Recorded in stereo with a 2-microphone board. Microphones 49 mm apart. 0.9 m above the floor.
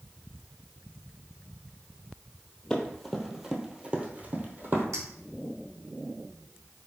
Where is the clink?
80° right, 1.4 m.